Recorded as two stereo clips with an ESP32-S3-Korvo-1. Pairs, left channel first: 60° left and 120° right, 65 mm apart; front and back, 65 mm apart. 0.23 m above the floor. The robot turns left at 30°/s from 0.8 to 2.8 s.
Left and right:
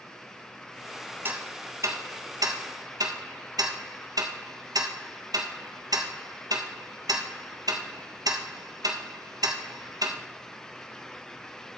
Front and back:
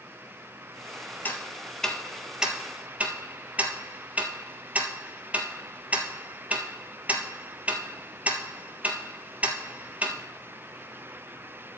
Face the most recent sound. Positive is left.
turn(degrees=-110)